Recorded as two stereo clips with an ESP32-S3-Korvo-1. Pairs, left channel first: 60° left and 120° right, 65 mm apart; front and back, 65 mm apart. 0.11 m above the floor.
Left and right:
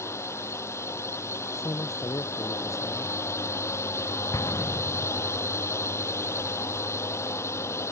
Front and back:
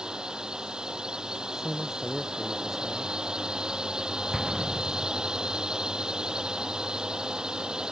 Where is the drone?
100° left.